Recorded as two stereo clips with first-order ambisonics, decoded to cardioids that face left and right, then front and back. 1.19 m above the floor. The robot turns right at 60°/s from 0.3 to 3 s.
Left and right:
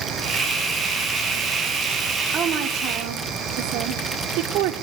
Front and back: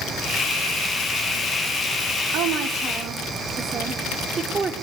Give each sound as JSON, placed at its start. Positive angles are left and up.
{"t": 2.3, "sound": "a woman speaking", "azimuth_deg": -155, "distance_m": 3.0}